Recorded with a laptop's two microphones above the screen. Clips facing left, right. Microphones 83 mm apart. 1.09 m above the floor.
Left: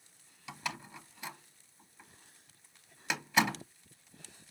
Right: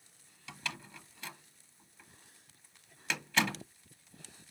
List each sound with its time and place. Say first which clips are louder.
0.5 s a door slam: left 3 dB; 15° left (ahead or behind), 1.0 m